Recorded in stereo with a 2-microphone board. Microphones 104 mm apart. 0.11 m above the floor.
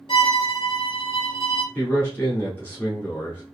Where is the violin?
55° left (ahead or behind), 0.8 m.